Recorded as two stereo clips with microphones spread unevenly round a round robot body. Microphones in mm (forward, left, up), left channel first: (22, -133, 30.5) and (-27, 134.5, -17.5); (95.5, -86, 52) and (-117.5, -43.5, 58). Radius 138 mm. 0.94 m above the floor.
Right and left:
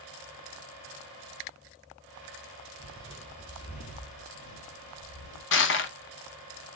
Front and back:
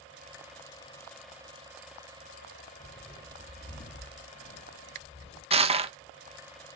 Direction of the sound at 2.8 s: 30° left.